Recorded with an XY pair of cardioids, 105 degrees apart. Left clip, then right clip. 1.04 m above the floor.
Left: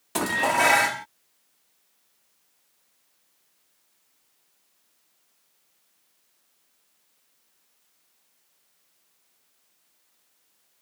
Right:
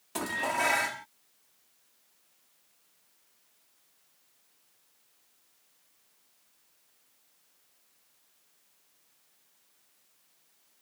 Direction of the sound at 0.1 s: 55° left.